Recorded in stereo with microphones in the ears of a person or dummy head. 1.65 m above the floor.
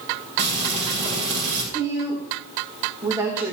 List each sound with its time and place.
0.4 s frying: 40° right (ahead or behind), 4.5 m
1.7 s a woman speaking: 20° right (ahead or behind), 2.5 m